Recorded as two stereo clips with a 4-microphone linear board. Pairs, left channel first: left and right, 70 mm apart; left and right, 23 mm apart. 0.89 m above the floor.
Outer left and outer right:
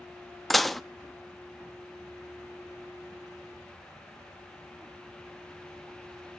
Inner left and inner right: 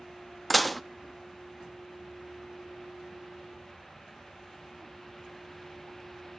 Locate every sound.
0.5 s dishes clattering: centre (ahead or behind), 0.6 m